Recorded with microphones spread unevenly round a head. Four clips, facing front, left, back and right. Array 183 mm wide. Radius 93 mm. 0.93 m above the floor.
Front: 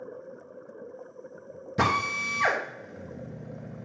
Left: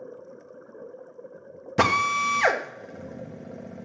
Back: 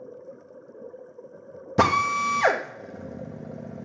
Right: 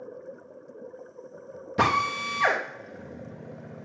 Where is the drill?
160° left, 1.0 m.